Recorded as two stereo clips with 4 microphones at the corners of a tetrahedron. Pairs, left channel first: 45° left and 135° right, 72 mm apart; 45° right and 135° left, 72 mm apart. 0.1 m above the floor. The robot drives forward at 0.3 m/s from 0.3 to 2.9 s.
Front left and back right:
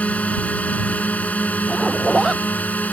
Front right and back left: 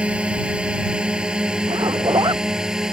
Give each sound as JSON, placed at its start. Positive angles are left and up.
{"t": 0.0, "sound": "a drone", "azimuth_deg": 85}
{"t": 1.7, "sound": "a zipper", "azimuth_deg": 135}